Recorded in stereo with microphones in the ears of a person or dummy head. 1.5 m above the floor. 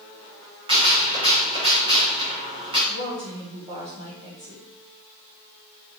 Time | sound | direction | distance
0.7 | a gunshot | 25° right (ahead or behind) | 2 m
2.9 | a woman speaking | 25° right (ahead or behind) | 3 m